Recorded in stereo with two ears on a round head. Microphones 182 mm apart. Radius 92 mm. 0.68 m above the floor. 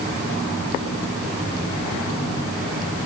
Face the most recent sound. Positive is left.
No sound to turn to.